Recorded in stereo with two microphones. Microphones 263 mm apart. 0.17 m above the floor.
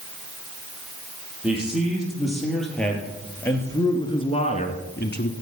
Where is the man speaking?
5° right (ahead or behind), 4.5 m; by 5.3 s 45° left (ahead or behind), 1.4 m.